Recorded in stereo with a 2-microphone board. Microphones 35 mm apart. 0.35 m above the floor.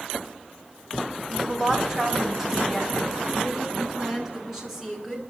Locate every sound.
1.3 s a woman speaking: 15° right (ahead or behind), 2 m; by 5.2 s 10° right (ahead or behind), 6 m